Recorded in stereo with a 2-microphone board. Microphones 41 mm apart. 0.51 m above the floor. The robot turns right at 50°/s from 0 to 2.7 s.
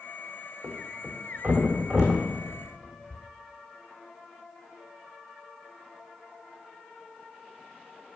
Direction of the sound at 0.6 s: 80° right.